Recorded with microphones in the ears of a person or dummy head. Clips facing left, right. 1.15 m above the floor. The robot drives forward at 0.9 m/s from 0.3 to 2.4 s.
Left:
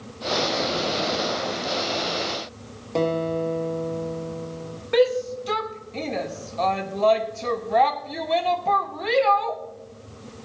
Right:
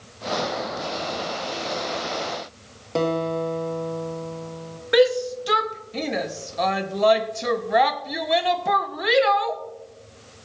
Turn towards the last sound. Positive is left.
turn(degrees=-10)  # may be behind; listen again after turning